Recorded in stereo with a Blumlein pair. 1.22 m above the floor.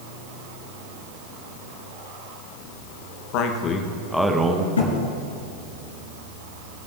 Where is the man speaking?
40° left, 1.5 m; by 4.7 s 20° right, 1.5 m.